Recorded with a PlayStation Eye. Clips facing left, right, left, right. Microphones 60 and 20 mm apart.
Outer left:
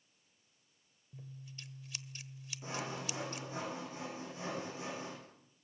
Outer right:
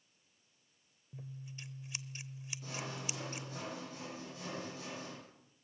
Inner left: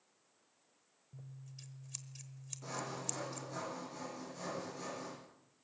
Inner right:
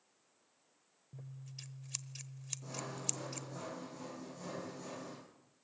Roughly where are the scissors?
Right.